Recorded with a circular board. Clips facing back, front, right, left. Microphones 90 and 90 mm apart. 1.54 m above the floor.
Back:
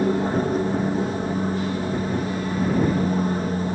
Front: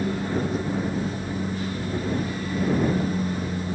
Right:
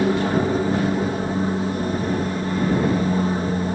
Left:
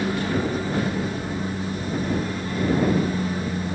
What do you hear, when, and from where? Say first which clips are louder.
0.0 s an aircraft: back 5 dB, right 5 dB; 140° right